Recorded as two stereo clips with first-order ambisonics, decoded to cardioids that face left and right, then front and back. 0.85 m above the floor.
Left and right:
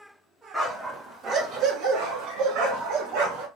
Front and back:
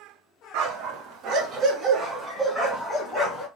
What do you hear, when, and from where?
0.5 s a dog barking: straight behind, 0.9 m; by 3.5 s 80° right, 1.5 m